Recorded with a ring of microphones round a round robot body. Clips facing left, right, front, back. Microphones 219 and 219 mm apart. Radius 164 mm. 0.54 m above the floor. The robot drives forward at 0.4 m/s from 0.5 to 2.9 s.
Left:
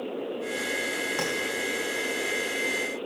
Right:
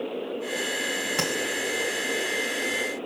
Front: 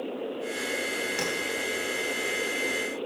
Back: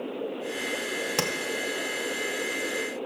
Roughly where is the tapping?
Behind.